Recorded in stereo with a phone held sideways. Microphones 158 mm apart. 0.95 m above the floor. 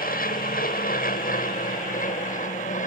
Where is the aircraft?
75° left (ahead or behind); by 2.9 s 60° left (ahead or behind).